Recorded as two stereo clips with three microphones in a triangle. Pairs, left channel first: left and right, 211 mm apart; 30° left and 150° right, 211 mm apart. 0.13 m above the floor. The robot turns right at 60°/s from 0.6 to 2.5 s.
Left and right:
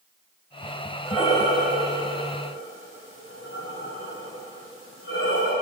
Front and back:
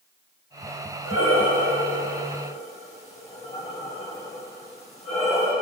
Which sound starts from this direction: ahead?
Breathing, at 1.1 s.